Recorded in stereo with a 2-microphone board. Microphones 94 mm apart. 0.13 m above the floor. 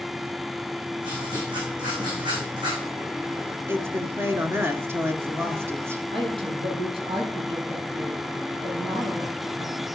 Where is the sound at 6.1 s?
70° right (ahead or behind), 5 m.